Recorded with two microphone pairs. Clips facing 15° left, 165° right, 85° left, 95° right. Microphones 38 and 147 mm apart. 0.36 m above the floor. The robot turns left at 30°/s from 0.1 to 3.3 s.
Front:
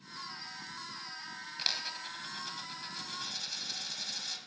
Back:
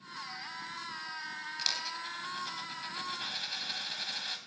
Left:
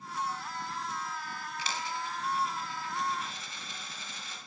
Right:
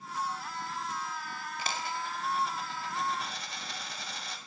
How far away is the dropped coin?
About 0.8 m.